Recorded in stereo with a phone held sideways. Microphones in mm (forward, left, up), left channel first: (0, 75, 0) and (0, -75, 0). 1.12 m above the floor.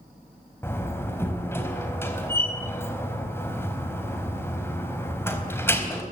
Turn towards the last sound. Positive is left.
turn(degrees=15)  # may be behind; listen again after turning